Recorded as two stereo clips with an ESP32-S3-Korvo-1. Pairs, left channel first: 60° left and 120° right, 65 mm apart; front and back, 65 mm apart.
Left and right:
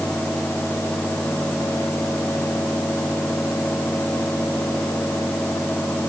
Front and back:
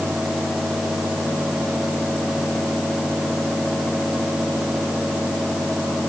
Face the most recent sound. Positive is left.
No sound to turn to.